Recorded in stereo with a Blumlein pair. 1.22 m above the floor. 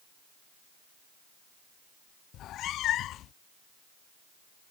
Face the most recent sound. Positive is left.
turn(degrees=35)